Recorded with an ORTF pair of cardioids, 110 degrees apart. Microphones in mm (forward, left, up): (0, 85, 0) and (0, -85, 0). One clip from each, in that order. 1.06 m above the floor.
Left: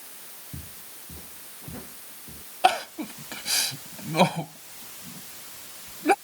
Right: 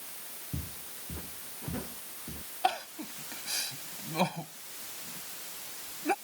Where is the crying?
50° left.